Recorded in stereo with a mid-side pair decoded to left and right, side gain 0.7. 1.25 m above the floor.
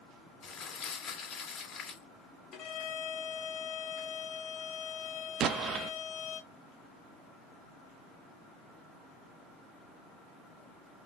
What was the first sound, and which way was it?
Crumpling, 40° left.